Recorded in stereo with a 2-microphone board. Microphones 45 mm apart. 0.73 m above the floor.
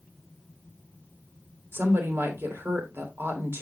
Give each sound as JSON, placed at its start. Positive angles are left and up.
{"t": 1.7, "sound": "a woman speaking", "side_deg": -60, "distance_m": 2.5}